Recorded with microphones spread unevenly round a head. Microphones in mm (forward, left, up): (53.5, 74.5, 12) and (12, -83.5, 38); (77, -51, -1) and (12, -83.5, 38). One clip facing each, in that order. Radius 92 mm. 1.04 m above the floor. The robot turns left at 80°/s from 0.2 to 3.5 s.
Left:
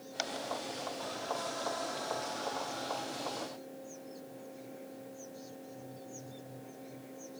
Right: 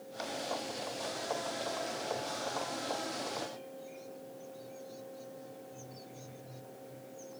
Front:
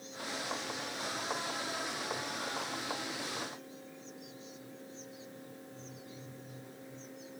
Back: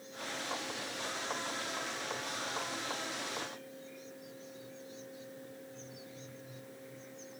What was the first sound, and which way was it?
Only background noise.